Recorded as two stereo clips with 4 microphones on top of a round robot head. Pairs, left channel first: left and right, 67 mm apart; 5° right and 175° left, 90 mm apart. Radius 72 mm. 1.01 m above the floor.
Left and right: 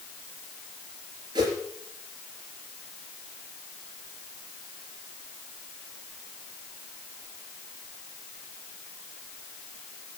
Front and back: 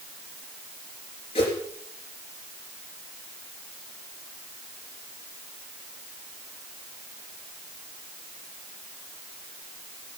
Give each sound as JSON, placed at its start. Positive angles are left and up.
{"t": 1.4, "sound": "a whoosh", "azimuth_deg": -45, "distance_m": 3.5}